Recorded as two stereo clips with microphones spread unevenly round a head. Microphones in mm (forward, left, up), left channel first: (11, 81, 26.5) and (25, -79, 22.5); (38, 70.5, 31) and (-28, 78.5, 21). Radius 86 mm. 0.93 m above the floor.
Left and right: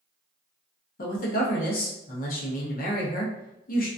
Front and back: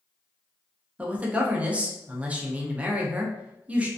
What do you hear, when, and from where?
1.0 s a man speaking: 110° left, 0.7 m